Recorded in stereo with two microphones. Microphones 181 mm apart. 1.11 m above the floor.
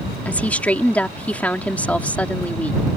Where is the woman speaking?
5° left (ahead or behind).